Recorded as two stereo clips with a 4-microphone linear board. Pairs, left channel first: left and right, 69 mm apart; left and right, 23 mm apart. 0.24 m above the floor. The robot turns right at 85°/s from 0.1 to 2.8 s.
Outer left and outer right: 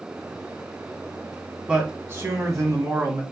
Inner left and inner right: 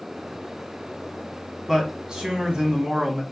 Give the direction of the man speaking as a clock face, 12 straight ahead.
5 o'clock.